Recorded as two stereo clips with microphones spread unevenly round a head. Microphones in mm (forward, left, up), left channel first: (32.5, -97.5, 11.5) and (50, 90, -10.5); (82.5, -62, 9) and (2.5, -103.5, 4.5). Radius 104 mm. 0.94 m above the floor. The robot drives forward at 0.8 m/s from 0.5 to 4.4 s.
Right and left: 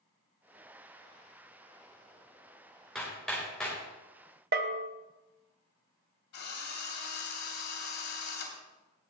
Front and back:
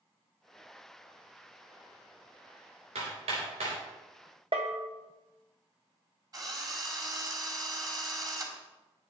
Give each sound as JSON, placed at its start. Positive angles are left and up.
{"t": 3.0, "sound": "hammering", "azimuth_deg": 180, "distance_m": 3.0}
{"t": 4.5, "sound": "a bell", "azimuth_deg": 135, "distance_m": 0.6}
{"t": 6.3, "sound": "a drill", "azimuth_deg": -105, "distance_m": 3.0}